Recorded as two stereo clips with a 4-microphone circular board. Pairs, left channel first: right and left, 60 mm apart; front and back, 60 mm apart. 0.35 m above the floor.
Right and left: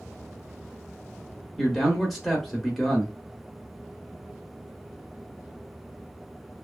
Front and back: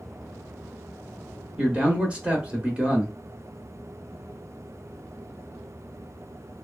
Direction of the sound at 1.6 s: 175° left.